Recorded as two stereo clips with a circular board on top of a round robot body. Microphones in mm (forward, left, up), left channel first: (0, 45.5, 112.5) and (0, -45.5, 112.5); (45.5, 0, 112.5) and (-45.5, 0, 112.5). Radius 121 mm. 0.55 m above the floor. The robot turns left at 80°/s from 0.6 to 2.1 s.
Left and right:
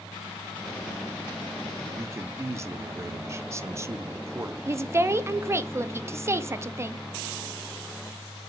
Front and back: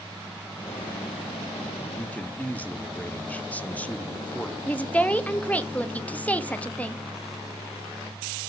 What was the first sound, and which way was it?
A man speaking, 45° right.